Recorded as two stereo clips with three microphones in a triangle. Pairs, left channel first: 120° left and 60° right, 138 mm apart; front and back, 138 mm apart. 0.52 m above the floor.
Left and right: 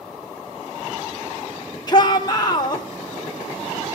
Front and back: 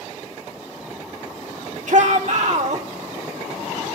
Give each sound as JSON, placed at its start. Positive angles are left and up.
{"t": 1.9, "sound": "a shout", "azimuth_deg": 175, "distance_m": 1.2}